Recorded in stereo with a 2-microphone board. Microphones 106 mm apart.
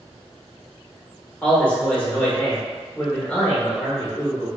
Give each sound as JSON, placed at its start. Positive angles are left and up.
{"t": 1.4, "sound": "a man speaking", "side_deg": 10, "distance_m": 1.0}